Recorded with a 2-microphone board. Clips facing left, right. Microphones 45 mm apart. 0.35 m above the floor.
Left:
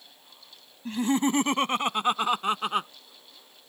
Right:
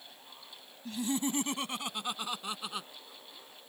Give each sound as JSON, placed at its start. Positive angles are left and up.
{"t": 0.8, "sound": "laughter", "side_deg": 45}